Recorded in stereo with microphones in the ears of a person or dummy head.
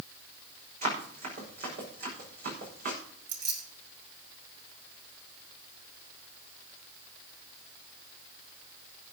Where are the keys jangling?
60° right (ahead or behind), 4.5 m.